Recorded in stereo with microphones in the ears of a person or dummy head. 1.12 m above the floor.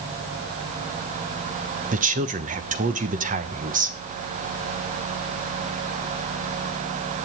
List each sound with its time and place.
1.9 s a woman speaking: 35° right (ahead or behind), 1.1 m